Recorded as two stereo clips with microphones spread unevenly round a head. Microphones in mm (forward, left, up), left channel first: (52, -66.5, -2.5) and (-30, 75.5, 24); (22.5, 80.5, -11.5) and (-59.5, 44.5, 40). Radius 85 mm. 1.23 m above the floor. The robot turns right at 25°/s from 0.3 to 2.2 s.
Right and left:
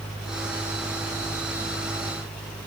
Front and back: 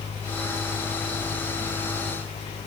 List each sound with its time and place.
Only background noise.